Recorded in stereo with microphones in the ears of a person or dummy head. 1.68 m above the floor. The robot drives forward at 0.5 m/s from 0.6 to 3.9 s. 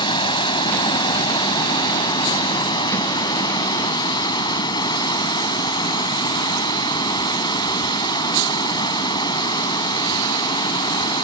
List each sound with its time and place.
0.0 s running water: 25° left (ahead or behind)